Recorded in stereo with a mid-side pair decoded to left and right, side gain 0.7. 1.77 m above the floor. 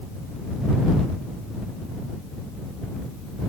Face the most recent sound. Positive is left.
No sound to turn to.